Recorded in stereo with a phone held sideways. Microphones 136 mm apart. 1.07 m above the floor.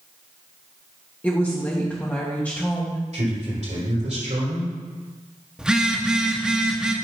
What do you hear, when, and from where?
1.2 s a woman speaking: 15° left (ahead or behind), 1.2 m
3.1 s a man speaking: 60° right (ahead or behind), 4 m
5.6 s a phone buzzing: 5° right (ahead or behind), 1.0 m